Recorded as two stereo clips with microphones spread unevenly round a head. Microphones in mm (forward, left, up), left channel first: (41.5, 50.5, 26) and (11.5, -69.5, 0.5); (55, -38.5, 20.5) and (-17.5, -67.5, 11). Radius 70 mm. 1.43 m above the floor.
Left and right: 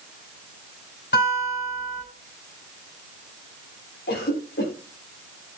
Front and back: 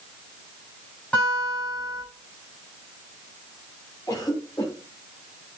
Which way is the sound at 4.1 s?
90° left.